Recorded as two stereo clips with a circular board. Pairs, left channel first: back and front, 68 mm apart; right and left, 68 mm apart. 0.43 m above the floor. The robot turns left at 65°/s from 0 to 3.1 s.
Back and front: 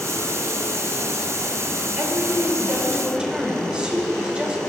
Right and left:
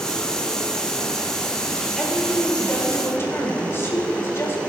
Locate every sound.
2.0 s a woman speaking: 5° left, 1.7 m; by 4.6 s 65° right, 1.7 m